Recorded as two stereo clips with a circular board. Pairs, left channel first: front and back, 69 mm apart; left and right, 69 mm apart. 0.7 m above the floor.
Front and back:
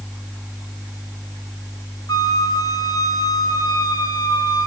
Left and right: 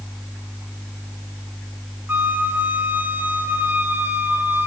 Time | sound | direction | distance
2.1 | a flute | 25° right | 1.2 m